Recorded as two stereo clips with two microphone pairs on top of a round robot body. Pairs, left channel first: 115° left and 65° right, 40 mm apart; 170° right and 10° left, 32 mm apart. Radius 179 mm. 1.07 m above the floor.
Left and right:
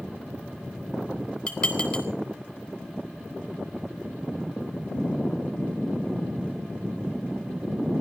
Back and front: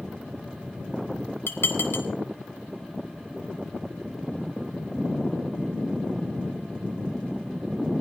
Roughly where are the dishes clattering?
Behind.